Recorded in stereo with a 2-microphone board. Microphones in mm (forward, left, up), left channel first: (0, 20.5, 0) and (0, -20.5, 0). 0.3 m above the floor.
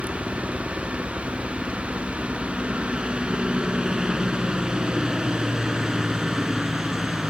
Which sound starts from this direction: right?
A helicopter, at 0.0 s.